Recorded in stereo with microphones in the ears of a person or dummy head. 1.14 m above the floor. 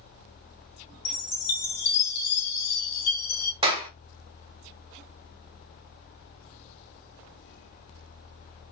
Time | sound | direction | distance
1.1 | a chime | 60° left (ahead or behind) | 1.1 m
3.6 | a clap | 30° right (ahead or behind) | 1.0 m